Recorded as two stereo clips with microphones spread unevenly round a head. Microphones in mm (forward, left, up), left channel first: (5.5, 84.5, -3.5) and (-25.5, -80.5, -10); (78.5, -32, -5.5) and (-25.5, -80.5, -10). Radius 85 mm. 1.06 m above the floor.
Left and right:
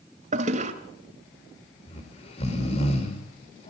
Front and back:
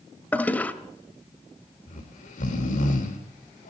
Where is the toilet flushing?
50° right, 1.8 m.